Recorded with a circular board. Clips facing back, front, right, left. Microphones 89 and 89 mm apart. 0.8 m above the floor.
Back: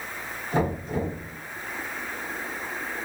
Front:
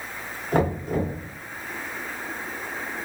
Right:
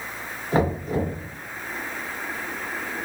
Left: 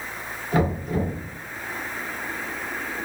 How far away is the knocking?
About 1.4 m.